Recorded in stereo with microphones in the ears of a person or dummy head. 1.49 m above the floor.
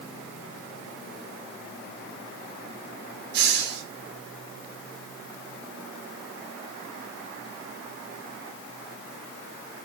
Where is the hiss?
60° right (ahead or behind), 2 m.